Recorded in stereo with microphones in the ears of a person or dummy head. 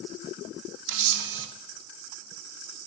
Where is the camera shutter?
70° right (ahead or behind), 0.9 m.